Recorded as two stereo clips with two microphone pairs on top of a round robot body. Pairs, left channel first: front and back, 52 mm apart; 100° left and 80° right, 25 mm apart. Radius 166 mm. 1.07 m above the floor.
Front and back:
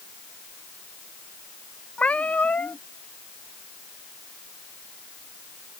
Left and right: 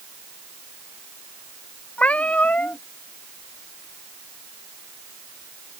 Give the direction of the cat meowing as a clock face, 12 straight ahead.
10 o'clock.